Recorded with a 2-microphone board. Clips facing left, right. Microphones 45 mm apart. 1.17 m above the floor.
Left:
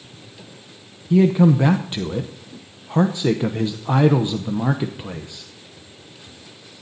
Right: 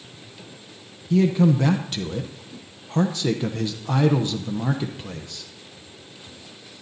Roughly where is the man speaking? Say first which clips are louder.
Left 4 dB; left.